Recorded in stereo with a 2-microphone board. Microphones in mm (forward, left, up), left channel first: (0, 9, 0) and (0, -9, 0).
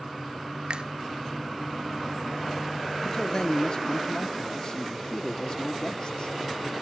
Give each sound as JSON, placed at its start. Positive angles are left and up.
{"t": 0.7, "sound": "a finger snap", "side_deg": -50, "distance_m": 0.7}
{"t": 3.0, "sound": "a man speaking", "side_deg": 40, "distance_m": 0.7}